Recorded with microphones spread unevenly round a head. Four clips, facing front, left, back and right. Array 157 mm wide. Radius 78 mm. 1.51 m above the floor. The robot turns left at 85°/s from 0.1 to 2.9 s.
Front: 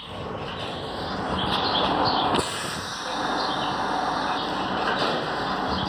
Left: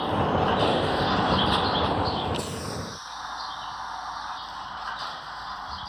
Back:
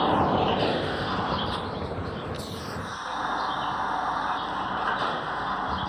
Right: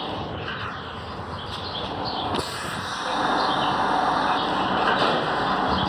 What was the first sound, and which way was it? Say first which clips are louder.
A vehicle: left 7 dB, back 11 dB; 175° left.